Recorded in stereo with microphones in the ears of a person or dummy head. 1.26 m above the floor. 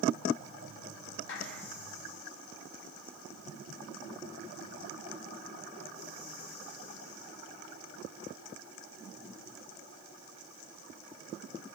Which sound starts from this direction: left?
A clap, at 1.3 s.